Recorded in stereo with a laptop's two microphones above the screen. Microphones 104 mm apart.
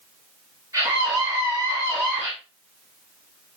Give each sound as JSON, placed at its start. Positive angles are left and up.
{"t": 0.7, "sound": "a scream", "side_deg": -30, "distance_m": 9.0}